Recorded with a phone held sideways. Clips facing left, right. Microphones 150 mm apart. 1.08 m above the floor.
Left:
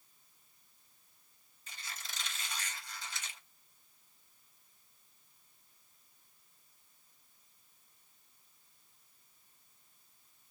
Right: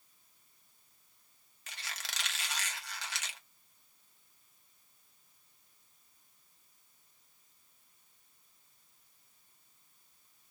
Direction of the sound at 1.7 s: 70° right (ahead or behind).